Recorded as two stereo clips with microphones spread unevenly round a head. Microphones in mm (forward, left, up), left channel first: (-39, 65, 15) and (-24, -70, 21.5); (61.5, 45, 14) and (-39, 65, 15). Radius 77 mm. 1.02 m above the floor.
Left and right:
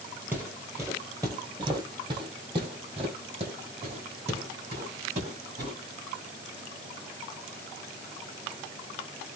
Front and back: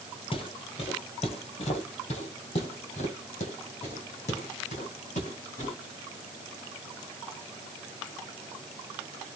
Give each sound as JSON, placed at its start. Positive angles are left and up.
{"t": 0.3, "sound": "footsteps", "azimuth_deg": -10, "distance_m": 1.5}